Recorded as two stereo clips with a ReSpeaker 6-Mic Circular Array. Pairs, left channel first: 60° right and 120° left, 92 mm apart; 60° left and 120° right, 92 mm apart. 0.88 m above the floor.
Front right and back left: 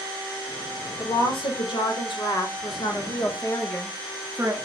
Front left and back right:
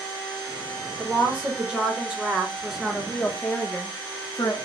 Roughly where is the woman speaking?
Ahead right.